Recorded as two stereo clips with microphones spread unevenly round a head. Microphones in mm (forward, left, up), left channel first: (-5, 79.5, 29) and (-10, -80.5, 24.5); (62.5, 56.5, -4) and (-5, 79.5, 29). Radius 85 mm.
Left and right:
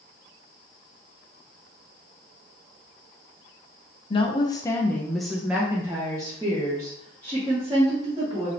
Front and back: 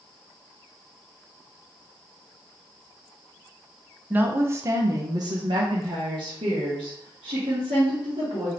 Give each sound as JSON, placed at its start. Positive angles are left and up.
{"t": 4.1, "sound": "a woman speaking", "azimuth_deg": 70, "distance_m": 0.8}